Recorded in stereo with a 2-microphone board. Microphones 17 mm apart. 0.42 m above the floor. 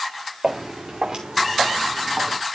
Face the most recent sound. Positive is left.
turn(degrees=-55)  # may be behind; listen again after turning